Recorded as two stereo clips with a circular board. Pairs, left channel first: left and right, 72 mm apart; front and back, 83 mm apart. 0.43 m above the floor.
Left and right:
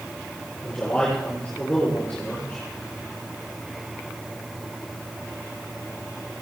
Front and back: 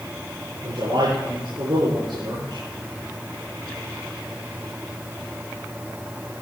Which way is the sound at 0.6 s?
165° left.